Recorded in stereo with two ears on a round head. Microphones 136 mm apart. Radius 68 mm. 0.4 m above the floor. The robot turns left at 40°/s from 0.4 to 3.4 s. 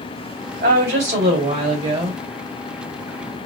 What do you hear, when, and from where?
0.6 s a woman speaking: 100° right, 2.5 m; by 2.2 s 165° right, 2.5 m